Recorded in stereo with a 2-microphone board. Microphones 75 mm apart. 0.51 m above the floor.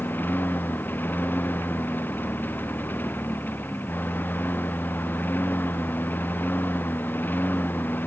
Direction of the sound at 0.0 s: 25° left (ahead or behind).